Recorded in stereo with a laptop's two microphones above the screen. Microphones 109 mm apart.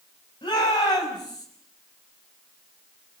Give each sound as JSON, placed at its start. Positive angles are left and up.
{"t": 0.4, "sound": "a shout", "side_deg": 40, "distance_m": 7.5}